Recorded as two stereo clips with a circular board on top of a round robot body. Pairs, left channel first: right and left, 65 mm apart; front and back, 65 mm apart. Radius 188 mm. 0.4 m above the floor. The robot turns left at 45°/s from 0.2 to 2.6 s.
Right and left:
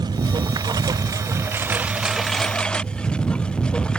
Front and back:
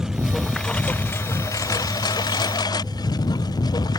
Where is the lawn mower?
95° left; by 4.0 s 10° right.